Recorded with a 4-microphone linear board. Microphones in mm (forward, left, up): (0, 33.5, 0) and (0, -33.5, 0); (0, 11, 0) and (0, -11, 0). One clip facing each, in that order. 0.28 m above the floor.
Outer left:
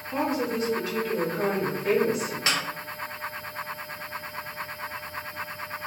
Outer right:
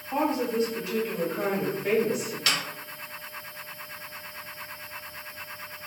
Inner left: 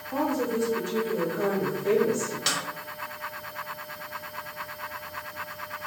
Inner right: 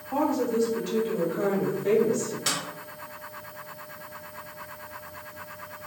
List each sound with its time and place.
0.1 s a woman speaking: 40° right (ahead or behind), 1.1 m; by 2.4 s centre (ahead or behind), 1.4 m
2.5 s a snare drum: 25° left (ahead or behind), 0.6 m